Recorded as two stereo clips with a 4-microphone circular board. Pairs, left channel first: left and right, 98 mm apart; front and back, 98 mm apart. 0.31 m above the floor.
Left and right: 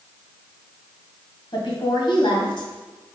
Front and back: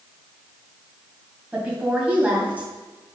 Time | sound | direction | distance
1.5 | a woman speaking | 110° left | 1.9 m